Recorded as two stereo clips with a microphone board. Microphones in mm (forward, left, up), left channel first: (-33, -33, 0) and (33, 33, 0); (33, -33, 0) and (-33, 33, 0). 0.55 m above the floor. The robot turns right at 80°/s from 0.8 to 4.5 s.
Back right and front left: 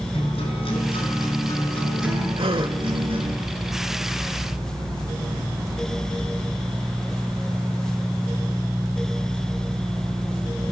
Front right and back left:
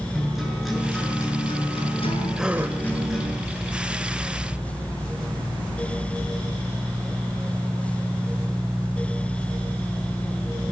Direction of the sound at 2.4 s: 50° left.